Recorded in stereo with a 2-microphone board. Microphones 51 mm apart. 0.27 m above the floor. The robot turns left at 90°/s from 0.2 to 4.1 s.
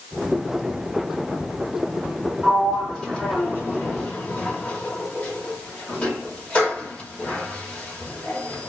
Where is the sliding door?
15° right (ahead or behind), 1.3 m; by 8.7 s 25° left (ahead or behind), 1.3 m.